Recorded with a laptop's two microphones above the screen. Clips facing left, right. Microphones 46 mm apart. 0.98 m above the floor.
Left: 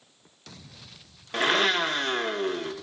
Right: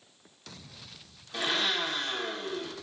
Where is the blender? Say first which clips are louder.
Left 7 dB; 50° left (ahead or behind), 1.3 m.